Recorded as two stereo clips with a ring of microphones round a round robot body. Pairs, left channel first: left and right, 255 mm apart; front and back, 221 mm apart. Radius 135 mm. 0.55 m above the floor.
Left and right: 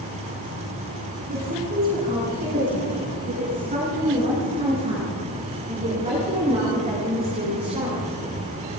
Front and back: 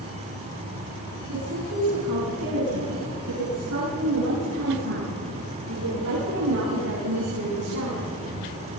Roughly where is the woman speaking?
Behind right.